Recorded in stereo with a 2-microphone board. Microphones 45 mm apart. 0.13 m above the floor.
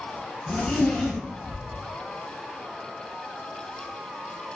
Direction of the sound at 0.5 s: 15° left (ahead or behind).